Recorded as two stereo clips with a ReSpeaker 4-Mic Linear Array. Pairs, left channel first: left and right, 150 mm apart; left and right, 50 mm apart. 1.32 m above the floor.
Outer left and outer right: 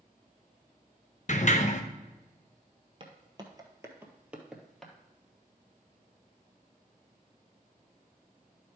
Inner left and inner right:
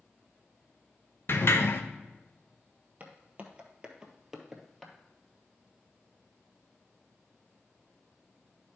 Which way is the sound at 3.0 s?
35° right (ahead or behind).